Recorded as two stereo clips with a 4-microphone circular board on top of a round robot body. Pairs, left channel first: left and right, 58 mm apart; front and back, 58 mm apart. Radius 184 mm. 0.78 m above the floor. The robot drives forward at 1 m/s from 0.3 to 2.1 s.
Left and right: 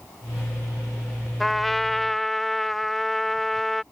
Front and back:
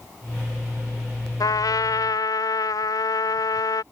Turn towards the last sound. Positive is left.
turn(degrees=5)